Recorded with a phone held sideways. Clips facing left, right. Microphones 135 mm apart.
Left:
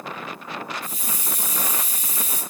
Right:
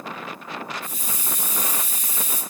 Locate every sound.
0.8 s a hiss: 35° left (ahead or behind), 0.8 m